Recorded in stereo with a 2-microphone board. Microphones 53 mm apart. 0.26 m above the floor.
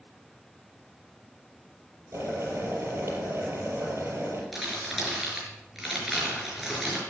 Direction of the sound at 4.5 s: 5° right (ahead or behind).